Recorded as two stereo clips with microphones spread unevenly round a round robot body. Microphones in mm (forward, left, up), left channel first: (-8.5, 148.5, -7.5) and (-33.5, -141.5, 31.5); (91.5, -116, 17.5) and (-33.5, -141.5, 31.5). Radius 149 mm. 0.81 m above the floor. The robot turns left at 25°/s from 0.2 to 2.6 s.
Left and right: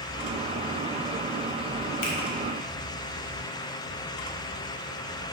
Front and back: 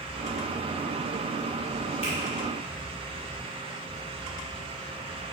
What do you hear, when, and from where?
2.0 s a finger snap: 65° left, 1.6 m; by 2.2 s 60° left, 1.6 m